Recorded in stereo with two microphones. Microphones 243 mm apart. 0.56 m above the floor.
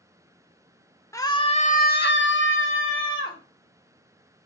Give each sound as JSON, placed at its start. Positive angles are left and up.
{"t": 1.1, "sound": "a scream", "side_deg": 10, "distance_m": 1.3}